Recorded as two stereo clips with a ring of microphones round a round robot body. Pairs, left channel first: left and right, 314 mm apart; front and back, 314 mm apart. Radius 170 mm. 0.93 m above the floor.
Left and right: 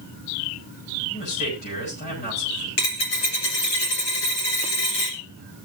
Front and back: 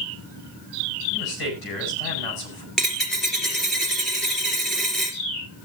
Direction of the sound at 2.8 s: 90° left.